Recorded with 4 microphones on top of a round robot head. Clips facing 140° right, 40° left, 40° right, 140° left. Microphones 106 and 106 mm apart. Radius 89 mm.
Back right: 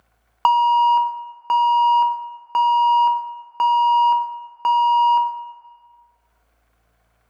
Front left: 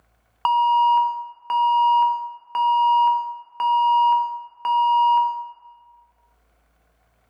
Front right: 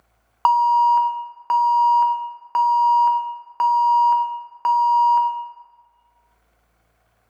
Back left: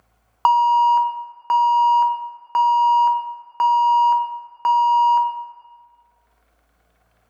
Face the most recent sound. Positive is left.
turn(degrees=-135)